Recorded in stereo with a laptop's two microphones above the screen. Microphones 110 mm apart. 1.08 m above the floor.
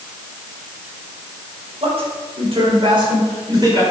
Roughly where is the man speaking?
Right.